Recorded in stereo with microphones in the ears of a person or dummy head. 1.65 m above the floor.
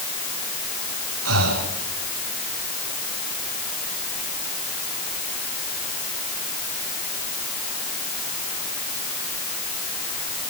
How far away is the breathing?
About 4.5 m.